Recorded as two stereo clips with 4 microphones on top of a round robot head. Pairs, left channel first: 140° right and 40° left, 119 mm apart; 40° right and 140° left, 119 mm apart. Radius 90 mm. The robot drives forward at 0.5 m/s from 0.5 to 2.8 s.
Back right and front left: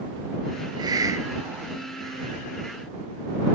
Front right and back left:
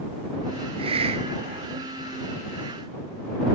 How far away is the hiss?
About 1.4 m.